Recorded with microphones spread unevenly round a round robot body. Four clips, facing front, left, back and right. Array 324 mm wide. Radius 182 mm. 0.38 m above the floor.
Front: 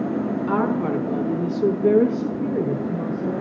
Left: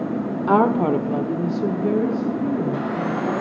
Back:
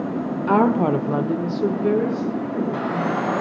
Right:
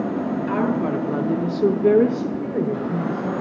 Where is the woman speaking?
130° left, 1.3 m; by 3.3 s 60° right, 2.5 m.